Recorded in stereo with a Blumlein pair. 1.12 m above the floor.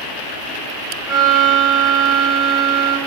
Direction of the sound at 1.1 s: 15° right.